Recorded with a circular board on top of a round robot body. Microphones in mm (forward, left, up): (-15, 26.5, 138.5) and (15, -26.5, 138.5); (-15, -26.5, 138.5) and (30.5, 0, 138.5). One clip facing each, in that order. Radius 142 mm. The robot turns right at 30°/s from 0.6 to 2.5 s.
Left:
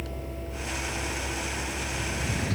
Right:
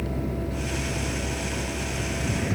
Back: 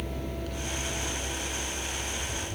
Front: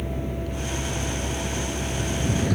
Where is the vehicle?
40° right; by 2.6 s 15° left.